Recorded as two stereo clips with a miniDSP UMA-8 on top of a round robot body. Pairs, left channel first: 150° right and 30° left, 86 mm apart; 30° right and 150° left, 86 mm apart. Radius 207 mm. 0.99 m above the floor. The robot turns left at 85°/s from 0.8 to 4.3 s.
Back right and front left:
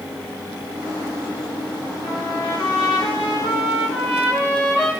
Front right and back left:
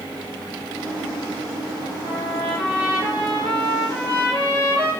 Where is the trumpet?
65° right, 6 m; by 4.9 s 105° left, 6 m.